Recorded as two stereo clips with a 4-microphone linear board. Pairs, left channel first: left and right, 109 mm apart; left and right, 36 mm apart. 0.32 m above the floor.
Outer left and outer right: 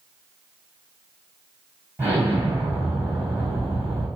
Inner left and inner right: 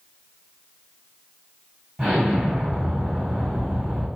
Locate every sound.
2.0 s an explosion: 20° right (ahead or behind), 1.7 m